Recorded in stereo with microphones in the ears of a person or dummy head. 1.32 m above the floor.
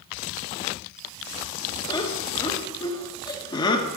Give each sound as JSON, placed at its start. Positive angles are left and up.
{"t": 1.9, "sound": "laughter", "side_deg": 25, "distance_m": 1.3}